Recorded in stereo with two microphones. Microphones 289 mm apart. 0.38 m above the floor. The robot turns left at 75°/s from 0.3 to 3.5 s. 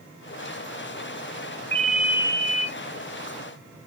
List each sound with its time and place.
1.7 s a ringtone: 15° left, 0.9 m; by 2.7 s 60° right, 0.9 m